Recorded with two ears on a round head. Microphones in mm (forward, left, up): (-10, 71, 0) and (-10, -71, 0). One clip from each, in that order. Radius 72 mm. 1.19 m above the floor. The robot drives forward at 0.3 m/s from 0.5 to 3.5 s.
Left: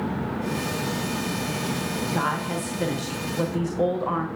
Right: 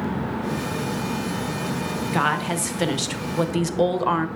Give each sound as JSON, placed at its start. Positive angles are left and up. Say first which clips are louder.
{"t": 2.1, "sound": "a woman speaking", "louder": "right 5 dB", "side_deg": -45, "distance_m": 0.9}